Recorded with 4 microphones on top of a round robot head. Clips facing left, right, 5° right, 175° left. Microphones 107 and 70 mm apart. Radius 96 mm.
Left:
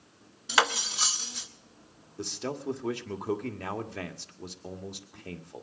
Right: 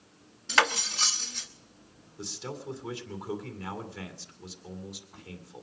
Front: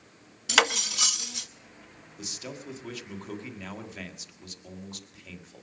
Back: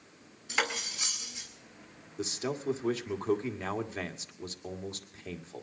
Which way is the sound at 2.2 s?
125° left.